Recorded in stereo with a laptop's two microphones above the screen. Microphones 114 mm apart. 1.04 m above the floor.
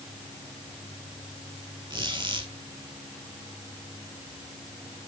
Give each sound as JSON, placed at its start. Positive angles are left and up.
{"t": 1.9, "sound": "a squeak", "side_deg": -40, "distance_m": 2.5}